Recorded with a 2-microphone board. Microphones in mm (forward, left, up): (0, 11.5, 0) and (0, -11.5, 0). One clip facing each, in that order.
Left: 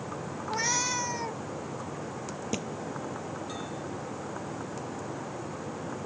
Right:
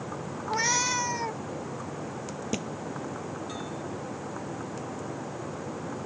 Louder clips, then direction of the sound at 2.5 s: Right 1 dB; centre (ahead or behind).